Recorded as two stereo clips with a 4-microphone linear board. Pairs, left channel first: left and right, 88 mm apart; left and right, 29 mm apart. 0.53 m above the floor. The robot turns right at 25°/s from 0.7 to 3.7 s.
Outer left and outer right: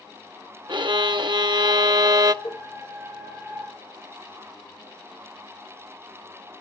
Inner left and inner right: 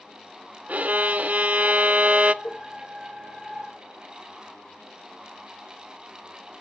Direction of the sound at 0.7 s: 100° right.